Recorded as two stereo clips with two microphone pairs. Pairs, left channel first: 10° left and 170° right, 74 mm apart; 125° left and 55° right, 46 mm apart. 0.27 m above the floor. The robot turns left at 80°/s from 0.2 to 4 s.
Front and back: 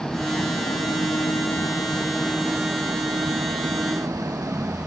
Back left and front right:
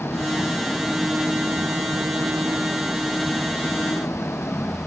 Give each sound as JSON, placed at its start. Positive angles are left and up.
{"t": 0.0, "sound": "an engine running", "azimuth_deg": 95}